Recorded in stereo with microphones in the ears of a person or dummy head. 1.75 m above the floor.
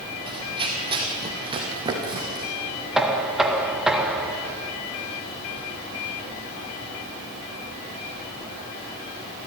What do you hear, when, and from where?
0.3 s running footsteps: 25° right (ahead or behind), 3.5 m
3.0 s knocking: 5° right (ahead or behind), 1.7 m